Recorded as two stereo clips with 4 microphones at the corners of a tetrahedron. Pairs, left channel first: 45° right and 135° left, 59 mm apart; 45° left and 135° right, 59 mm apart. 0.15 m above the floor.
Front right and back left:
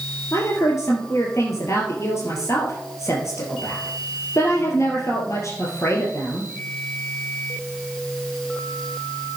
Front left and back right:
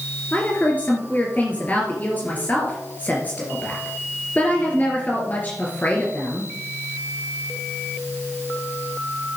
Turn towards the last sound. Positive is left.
turn(degrees=-15)